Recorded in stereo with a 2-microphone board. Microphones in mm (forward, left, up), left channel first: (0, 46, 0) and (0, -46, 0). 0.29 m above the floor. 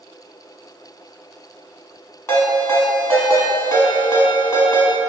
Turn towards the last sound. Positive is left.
turn(degrees=35)  # may be behind; listen again after turning